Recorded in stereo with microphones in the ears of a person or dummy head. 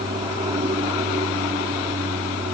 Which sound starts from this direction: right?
An aircraft, at 0.0 s.